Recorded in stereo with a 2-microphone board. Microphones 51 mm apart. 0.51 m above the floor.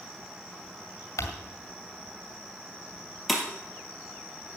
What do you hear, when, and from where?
1.2 s crumpling: 70° left (ahead or behind), 2.0 m
3.3 s breaking glass: centre (ahead or behind), 2 m